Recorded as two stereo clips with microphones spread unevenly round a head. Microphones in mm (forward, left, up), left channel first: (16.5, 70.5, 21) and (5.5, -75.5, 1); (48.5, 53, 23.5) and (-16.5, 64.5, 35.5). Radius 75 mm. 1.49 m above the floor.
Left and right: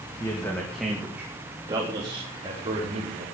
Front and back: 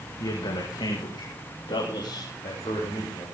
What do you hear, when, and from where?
0.2 s a man speaking: 15° left, 2.5 m; by 3.2 s 45° right, 5.5 m